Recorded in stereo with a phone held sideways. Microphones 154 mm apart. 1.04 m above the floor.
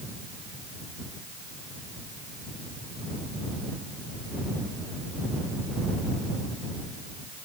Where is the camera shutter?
No camera shutter in this recording.